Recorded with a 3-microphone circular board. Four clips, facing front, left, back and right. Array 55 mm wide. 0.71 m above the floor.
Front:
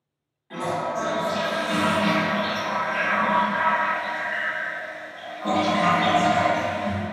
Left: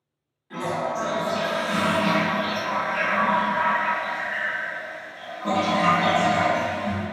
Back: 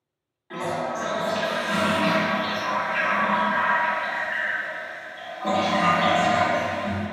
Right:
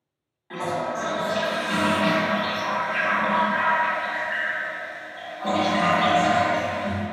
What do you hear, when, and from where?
0.5 s a toilet flushing: 110° right, 1.1 m